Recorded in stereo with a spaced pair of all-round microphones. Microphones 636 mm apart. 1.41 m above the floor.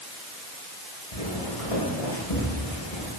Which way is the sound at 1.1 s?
60° left (ahead or behind).